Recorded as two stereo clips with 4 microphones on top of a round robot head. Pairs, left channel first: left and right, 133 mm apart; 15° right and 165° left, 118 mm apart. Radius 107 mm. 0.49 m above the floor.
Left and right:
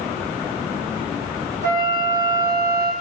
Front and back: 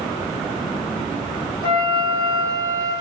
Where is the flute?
70° right, 1.5 m.